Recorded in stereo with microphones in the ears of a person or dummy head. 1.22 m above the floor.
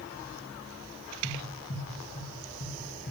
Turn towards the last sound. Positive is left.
turn(degrees=70)  # may be behind; listen again after turning